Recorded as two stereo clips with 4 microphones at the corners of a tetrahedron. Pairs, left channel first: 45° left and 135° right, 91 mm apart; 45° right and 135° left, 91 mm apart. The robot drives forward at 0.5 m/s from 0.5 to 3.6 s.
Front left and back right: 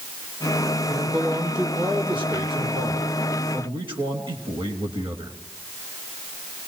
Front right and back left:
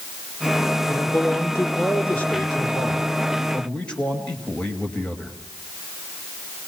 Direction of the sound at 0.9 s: 100° right.